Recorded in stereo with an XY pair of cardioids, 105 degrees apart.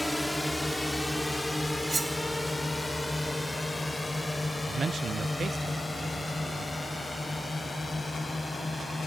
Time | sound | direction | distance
0.0 | a drone | straight ahead | ?
1.9 | cutlery clinking | 30° right | ?
4.7 | a man speaking | 45° right | ?